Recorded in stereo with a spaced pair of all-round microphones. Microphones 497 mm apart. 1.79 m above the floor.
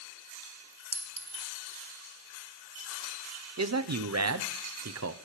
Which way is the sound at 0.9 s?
40° right (ahead or behind).